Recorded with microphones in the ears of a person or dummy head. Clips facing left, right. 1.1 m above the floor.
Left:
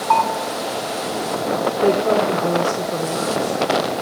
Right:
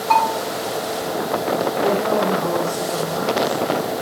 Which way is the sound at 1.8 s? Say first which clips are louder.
Left 4 dB; 50° left (ahead or behind).